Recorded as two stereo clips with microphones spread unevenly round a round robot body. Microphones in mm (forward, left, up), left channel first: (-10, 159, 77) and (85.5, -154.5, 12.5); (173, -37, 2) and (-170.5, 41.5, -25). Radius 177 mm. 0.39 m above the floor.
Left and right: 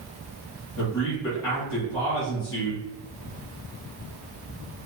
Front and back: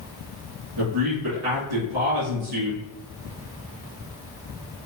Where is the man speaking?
155° left, 2.0 m.